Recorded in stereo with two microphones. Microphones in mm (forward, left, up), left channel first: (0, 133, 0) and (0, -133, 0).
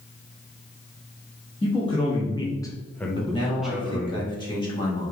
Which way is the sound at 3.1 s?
15° left (ahead or behind).